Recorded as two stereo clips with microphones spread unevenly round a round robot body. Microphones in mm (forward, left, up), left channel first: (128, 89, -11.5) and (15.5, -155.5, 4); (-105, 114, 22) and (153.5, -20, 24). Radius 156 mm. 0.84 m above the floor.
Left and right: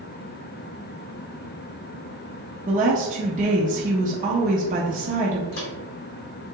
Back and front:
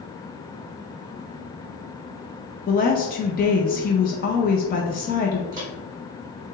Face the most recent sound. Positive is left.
turn(degrees=55)